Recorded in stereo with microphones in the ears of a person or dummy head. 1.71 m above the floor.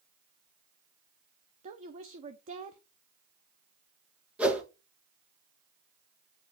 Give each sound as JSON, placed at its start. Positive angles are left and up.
{"t": 1.6, "sound": "a woman speaking", "side_deg": -35, "distance_m": 0.7}
{"t": 4.4, "sound": "a whoosh", "side_deg": -5, "distance_m": 2.0}